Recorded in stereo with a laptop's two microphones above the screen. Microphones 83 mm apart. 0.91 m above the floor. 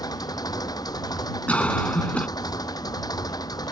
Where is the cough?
15° left (ahead or behind).